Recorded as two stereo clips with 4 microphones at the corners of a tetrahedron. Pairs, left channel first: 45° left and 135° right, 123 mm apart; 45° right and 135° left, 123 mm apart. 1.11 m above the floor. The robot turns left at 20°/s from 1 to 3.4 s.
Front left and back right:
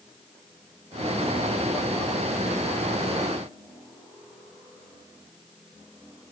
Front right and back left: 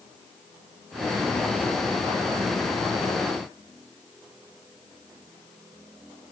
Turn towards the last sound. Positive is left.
No sound to turn to.